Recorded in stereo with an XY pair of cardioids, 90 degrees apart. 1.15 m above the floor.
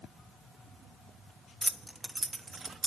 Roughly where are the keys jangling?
Ahead.